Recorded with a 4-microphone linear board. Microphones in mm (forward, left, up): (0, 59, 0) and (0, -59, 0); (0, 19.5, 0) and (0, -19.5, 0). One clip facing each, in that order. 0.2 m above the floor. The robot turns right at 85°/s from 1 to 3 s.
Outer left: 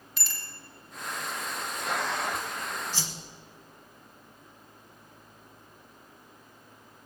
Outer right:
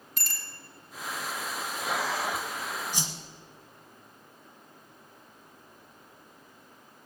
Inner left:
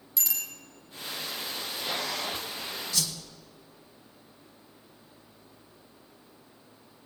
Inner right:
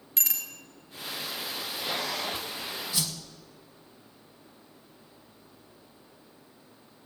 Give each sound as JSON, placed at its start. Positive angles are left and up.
{"t": 0.2, "sound": "a bicycle bell", "side_deg": -45, "distance_m": 2.5}
{"t": 2.9, "sound": "a whoosh", "side_deg": -15, "distance_m": 1.4}